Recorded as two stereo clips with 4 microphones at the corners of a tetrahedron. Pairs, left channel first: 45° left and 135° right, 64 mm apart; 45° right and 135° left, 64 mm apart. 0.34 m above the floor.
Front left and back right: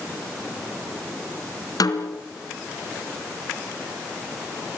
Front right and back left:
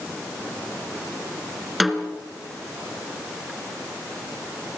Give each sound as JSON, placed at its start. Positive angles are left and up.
{"t": 1.8, "sound": "a snare drum", "azimuth_deg": 45, "distance_m": 3.0}